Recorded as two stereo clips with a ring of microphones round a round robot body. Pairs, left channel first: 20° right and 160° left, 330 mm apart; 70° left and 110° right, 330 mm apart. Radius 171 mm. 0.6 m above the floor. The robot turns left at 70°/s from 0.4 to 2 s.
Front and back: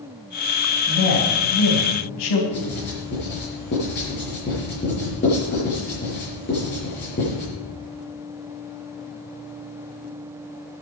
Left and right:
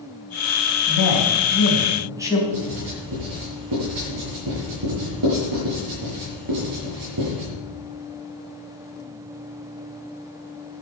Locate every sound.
0.9 s a man speaking: 45° left, 3.5 m; by 2.4 s 30° right, 3.5 m
2.5 s writing: 85° right, 7 m